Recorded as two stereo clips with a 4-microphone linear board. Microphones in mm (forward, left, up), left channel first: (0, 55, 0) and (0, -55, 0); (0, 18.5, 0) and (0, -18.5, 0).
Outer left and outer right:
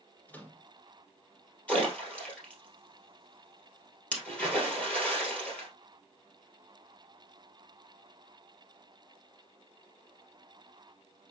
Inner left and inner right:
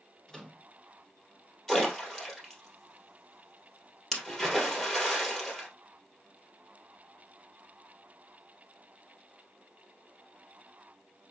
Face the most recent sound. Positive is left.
turn(degrees=10)  # may be behind; listen again after turning